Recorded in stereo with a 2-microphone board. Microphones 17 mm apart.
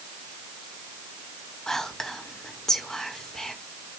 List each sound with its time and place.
1.7 s whispering: 30° left (ahead or behind), 1.2 m